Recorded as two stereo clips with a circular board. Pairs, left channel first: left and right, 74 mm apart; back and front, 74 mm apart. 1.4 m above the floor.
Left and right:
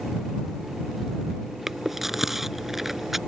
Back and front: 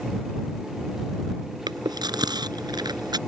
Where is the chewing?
5° right.